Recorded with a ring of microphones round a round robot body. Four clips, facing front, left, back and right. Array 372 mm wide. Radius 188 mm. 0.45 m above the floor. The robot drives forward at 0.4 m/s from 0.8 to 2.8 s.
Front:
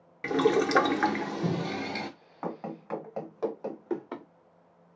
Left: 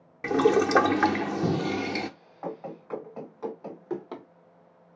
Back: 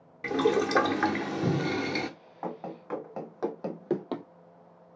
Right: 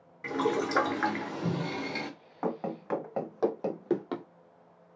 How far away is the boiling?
About 0.7 m.